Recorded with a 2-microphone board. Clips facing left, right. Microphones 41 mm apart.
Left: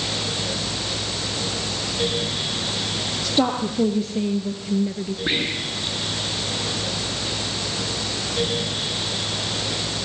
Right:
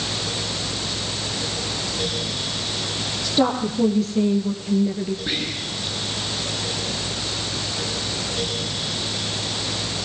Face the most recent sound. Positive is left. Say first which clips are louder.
# left 3 dB
turn(degrees=25)  # may be behind; listen again after turning